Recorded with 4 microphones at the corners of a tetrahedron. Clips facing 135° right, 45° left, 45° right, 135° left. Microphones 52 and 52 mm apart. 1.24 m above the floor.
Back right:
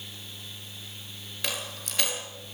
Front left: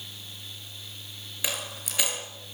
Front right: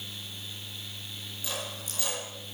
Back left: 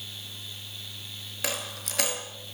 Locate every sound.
1.4 s a dropped coin: 130° left, 6.5 m